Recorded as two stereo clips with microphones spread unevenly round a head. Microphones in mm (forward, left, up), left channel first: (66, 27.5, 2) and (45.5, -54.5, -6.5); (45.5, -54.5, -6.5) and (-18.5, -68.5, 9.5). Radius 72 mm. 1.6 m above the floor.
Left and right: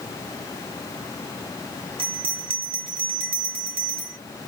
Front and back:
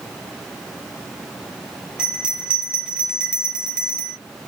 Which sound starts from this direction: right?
A bell, at 2.0 s.